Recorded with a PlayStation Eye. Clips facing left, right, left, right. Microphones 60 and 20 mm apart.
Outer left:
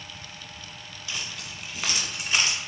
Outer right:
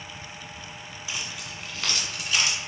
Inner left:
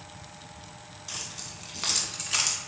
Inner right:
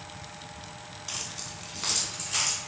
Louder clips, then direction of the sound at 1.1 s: Even, inner right 1 dB; 20° right (ahead or behind).